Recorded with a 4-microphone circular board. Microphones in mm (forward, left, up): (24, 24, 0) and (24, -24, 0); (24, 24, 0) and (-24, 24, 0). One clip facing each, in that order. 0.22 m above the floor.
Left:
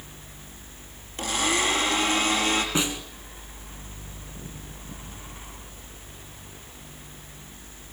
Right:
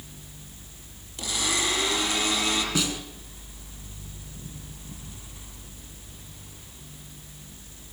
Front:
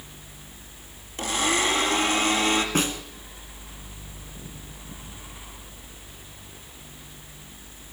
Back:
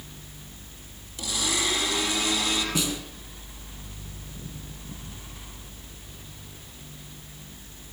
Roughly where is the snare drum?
Ahead left.